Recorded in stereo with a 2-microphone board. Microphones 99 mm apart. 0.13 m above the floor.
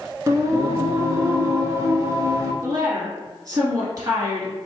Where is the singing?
30° right (ahead or behind), 0.9 m.